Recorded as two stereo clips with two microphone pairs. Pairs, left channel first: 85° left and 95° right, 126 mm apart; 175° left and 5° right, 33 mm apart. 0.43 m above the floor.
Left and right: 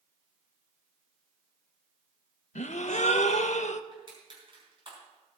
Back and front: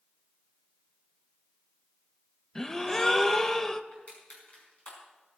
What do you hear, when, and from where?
2.5 s a gasp: 95° left, 0.6 m
3.9 s crushing: 145° right, 5 m